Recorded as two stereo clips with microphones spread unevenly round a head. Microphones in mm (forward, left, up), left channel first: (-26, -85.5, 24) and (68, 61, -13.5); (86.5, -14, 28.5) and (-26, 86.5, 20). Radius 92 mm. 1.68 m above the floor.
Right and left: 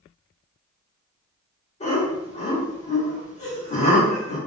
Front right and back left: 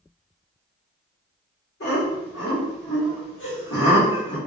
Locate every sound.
1.8 s laughter: 75° right, 1.1 m